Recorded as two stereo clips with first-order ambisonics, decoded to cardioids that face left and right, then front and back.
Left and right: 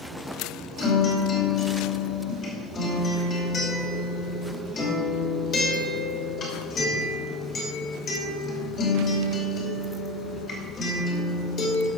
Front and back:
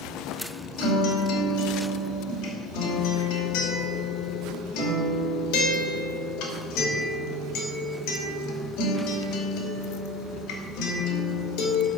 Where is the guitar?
25° left, 2.5 m.